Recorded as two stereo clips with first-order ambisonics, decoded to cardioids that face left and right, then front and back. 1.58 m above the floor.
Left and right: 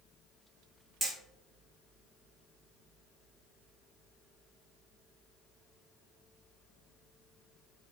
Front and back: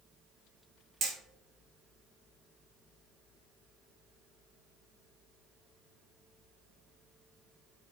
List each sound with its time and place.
1.0 s hammering: 165° right, 1.0 m